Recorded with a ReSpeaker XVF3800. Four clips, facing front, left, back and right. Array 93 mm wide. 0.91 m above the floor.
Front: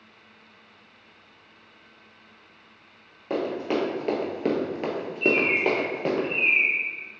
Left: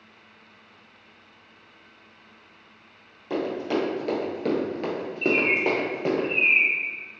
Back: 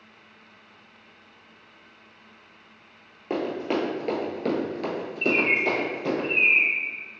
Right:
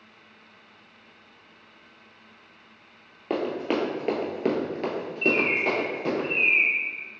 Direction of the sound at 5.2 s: Straight behind.